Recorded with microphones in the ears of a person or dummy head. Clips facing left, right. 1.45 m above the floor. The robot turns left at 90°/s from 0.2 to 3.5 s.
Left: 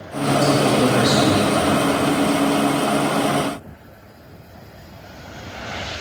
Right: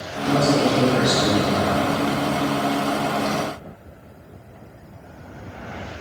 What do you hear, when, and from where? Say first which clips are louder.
0.2 s a man speaking: left 1 dB; 125° right, 3 m; by 1.8 s 90° left, 3 m